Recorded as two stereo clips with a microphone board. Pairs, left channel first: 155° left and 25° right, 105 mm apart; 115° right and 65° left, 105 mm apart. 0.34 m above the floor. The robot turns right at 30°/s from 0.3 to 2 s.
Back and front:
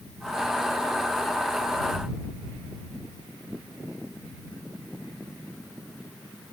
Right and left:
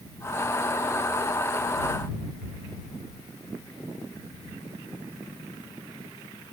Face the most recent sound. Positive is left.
No sound to turn to.